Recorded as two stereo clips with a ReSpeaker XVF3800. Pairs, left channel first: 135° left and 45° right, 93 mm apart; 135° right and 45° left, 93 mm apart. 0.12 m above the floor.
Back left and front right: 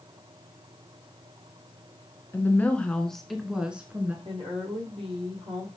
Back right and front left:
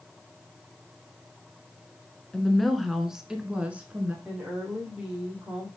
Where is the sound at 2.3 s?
150° left, 1.4 m; by 4.2 s straight ahead, 1.4 m.